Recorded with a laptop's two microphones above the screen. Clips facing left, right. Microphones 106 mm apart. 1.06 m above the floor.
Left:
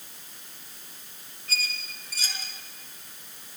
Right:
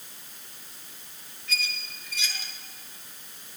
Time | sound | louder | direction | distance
1.5 | a squeak | right 1 dB | 40° left (ahead or behind) | 3 m